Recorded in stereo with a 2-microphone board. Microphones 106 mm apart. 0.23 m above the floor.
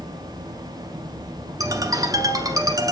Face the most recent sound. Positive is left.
turn(degrees=-35)  # may be behind; listen again after turning